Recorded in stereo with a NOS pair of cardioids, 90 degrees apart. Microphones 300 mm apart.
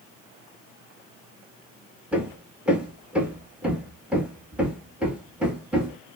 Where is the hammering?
5° right, 2 m.